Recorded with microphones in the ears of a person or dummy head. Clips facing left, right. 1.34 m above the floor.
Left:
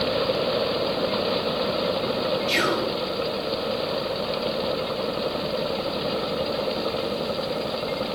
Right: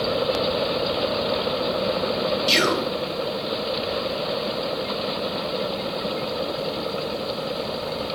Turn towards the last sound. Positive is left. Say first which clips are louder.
# right 2 dB
turn(degrees=-60)  # may be behind; listen again after turning